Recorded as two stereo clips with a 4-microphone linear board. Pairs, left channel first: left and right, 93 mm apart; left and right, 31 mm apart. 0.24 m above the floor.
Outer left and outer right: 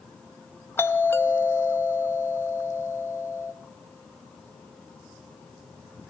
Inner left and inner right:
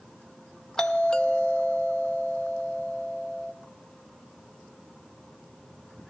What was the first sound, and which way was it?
A doorbell, 25° left (ahead or behind).